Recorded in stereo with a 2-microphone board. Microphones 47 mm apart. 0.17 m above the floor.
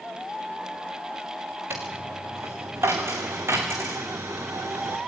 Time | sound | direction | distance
1.7 | a dropped coin | 70° right (ahead or behind) | 4 m